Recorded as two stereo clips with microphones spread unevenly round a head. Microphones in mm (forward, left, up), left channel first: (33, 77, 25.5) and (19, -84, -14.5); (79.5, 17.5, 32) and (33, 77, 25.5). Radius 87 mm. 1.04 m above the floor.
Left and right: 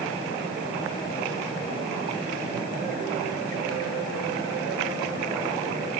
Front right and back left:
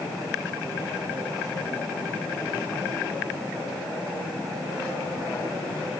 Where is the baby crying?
No baby crying in this recording.